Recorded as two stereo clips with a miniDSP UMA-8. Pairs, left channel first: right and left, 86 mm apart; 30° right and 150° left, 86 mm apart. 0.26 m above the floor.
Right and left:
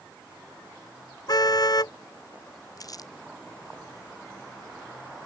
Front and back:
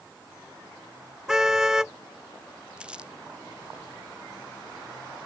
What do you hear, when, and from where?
1.3 s a car horn: 130° right
2.8 s crumpling: 135° right